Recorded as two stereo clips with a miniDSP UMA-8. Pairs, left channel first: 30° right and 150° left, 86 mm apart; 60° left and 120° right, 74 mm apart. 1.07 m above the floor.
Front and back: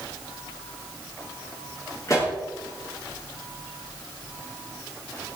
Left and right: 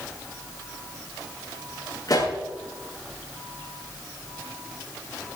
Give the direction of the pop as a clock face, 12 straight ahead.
11 o'clock.